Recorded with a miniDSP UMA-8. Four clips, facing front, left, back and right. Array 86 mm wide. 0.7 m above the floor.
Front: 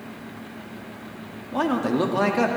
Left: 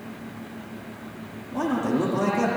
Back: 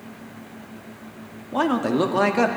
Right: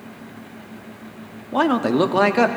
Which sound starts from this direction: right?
A man speaking, at 1.5 s.